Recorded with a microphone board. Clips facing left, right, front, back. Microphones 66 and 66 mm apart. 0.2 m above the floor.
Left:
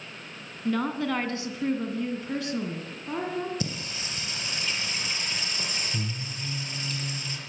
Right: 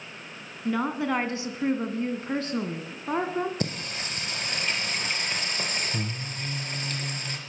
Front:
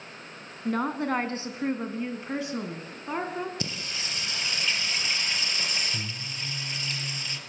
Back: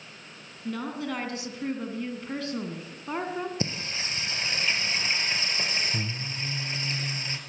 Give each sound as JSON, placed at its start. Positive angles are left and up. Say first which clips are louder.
{"t": 0.7, "sound": "a woman speaking", "louder": "right 1 dB, front 5 dB", "azimuth_deg": -15, "distance_m": 2.5}
{"t": 3.6, "sound": "singing", "louder": "right 2 dB, back 3 dB", "azimuth_deg": -120, "distance_m": 3.5}